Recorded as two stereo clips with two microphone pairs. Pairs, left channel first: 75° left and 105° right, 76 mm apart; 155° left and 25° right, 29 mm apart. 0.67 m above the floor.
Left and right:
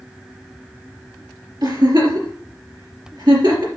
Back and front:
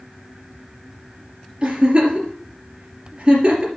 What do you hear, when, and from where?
1.6 s a giggle: 85° right, 3 m